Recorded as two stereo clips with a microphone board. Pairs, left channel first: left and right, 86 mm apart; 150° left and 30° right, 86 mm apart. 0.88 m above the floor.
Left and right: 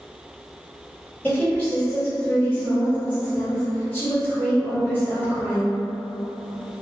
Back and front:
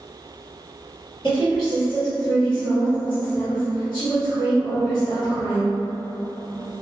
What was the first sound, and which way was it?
A woman speaking, 160° left.